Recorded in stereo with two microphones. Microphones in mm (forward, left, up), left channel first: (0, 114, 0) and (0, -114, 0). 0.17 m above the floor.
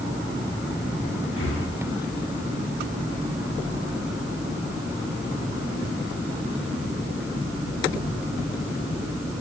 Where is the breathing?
60° left (ahead or behind), 2.5 m.